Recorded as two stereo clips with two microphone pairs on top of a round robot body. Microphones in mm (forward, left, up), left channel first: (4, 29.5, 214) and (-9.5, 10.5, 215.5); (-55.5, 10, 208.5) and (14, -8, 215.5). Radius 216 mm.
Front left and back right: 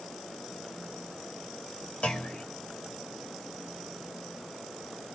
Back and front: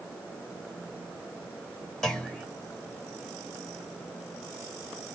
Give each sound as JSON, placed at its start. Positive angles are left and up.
{"t": 2.0, "sound": "a clunk", "azimuth_deg": 85, "distance_m": 2.0}